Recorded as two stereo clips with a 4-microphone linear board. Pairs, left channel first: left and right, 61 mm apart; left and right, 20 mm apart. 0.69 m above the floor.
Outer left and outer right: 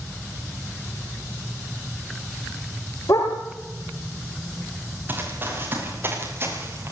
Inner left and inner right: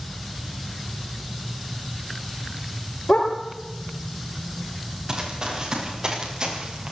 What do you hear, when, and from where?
3.1 s a dog barking: 80° left, 6 m
5.1 s running footsteps: 30° right (ahead or behind), 8.5 m; by 6.9 s 40° right (ahead or behind), 7.5 m